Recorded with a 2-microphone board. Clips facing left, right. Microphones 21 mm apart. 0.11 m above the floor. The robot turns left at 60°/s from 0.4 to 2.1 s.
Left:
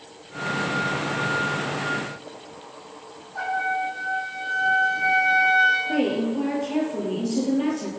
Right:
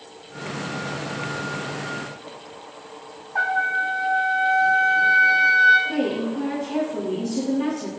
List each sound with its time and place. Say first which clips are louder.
3.4 s a trumpet: right 4 dB; 75° right (ahead or behind), 1.5 m
5.9 s a woman speaking: left 1 dB; 10° left (ahead or behind), 2.5 m